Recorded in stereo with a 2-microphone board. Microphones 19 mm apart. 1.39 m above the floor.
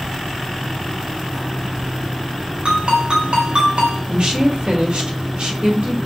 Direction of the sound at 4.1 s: 65° right (ahead or behind).